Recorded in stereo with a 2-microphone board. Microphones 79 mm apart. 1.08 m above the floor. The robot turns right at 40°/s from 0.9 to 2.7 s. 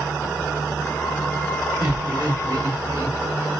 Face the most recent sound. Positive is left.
turn(degrees=-45)  # may be behind; listen again after turning